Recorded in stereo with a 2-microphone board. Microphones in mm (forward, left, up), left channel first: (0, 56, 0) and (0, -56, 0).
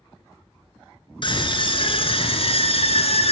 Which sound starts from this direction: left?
A scream, at 1.2 s.